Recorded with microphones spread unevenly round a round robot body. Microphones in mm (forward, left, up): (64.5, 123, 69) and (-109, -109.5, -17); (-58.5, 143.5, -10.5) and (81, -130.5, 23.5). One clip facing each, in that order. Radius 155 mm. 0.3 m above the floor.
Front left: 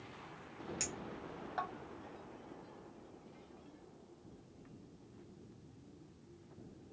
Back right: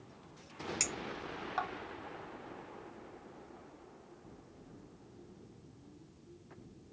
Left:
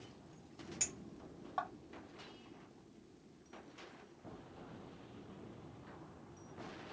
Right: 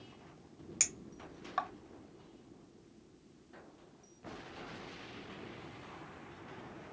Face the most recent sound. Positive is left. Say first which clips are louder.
# back right 3 dB, right 1 dB
turn(degrees=-90)